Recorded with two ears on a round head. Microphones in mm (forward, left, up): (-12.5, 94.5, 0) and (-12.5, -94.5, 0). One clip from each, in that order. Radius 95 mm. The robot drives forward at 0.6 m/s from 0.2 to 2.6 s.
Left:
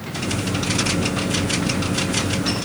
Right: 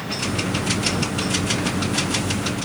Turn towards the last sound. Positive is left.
No sound to turn to.